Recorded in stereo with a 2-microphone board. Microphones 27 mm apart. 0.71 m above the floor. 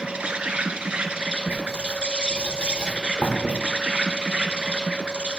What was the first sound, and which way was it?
An insect, 45° right (ahead or behind).